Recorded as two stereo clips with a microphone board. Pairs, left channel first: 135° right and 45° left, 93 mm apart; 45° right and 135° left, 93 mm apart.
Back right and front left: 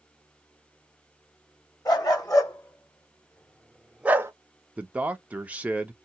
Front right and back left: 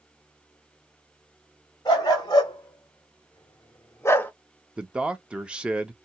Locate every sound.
1.9 s a dog barking: 90° right, 1.3 m; by 4.3 s 15° left, 0.5 m
4.8 s a man speaking: 80° left, 0.5 m